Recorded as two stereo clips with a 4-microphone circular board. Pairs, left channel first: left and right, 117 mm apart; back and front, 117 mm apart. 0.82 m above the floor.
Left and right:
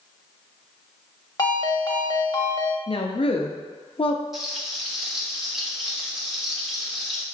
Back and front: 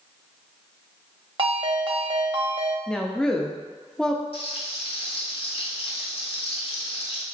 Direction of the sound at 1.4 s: 40° left.